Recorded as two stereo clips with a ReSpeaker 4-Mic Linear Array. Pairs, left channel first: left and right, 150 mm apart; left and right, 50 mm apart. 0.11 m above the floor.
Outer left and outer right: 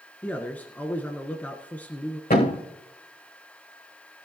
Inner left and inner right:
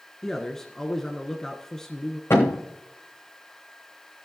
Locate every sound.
0.2 s a man speaking: 10° left (ahead or behind), 1.2 m
2.3 s a thud: 75° left (ahead or behind), 3.5 m